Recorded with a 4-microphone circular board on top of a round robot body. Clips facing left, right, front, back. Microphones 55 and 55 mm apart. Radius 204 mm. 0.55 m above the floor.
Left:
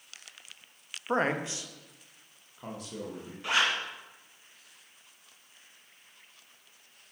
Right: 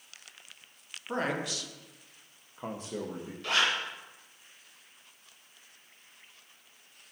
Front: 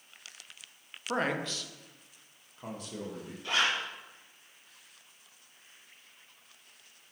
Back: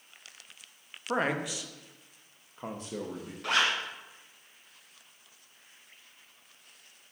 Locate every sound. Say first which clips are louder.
1.1 s a man speaking: left 4 dB, back 2 dB; 100° left, 1.2 m; by 3.3 s 130° right, 1.5 m
3.4 s a zipper: left 1 dB, back 2 dB; 160° left, 2 m